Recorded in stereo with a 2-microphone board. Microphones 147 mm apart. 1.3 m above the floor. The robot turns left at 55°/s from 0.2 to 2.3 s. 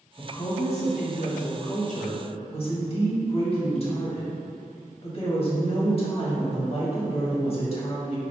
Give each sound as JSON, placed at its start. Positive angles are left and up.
{"t": 0.2, "sound": "a woman speaking", "azimuth_deg": 160, "distance_m": 1.4}